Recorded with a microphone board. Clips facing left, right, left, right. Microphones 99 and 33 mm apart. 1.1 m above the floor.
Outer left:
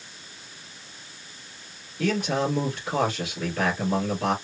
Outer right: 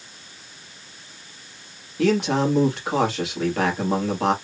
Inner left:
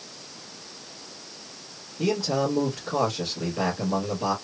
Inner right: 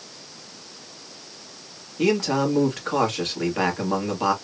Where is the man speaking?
80° right, 1.9 m.